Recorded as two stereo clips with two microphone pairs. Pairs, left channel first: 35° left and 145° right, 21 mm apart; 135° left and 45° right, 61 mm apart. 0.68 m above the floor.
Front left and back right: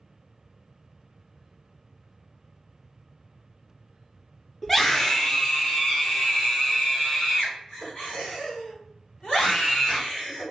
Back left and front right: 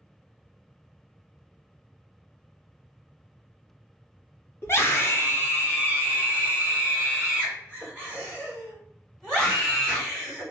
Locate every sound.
4.6 s a scream: 110° left, 1.0 m; by 10.4 s 75° left, 4 m